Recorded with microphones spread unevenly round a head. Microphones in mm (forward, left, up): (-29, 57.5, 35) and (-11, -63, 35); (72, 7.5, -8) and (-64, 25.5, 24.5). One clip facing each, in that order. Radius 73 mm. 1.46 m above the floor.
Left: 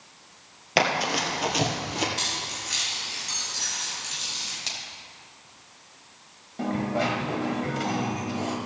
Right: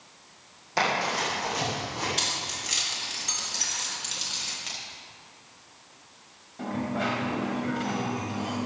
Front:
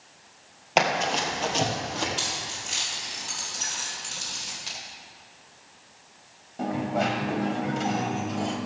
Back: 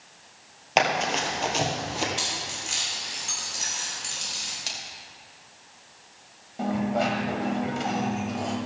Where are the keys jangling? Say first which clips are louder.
Even, even; 110° right, 4 m.